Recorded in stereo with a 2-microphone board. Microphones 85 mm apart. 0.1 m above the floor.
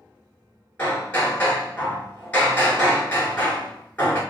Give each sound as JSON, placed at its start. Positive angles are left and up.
{"t": 0.8, "sound": "hammering", "side_deg": 15, "distance_m": 1.4}